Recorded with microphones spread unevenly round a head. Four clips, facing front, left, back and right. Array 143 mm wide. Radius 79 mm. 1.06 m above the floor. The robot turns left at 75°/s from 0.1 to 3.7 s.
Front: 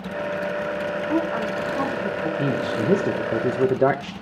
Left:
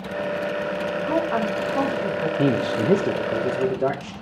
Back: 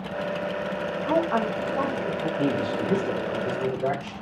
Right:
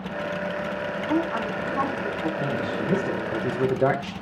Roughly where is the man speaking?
Left.